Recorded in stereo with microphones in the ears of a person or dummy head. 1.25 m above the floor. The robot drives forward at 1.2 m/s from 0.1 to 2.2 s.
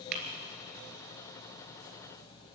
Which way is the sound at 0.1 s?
55° right (ahead or behind).